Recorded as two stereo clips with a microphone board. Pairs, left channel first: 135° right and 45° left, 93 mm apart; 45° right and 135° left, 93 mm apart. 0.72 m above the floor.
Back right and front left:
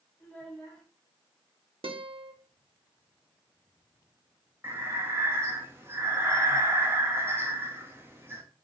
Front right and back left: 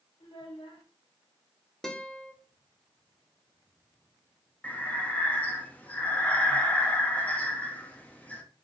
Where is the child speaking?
60° right, 1.5 m.